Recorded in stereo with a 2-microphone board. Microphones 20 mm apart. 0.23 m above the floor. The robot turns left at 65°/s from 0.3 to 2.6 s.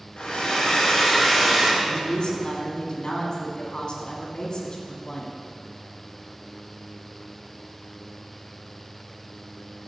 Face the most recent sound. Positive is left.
turn(degrees=85)